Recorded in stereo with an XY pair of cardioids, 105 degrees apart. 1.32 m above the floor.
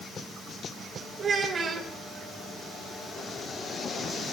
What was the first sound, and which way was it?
A child speaking, 40° right.